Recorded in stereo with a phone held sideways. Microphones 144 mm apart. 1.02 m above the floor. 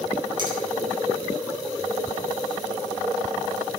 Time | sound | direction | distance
0.4 | a finger snap | 30° right (ahead or behind) | 5 m